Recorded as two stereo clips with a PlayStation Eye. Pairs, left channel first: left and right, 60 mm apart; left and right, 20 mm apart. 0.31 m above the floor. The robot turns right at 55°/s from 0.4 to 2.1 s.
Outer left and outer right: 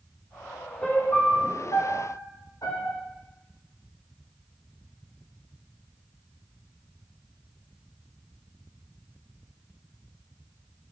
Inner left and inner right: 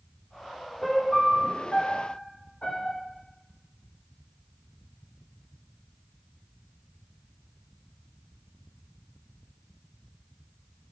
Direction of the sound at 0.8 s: 15° left.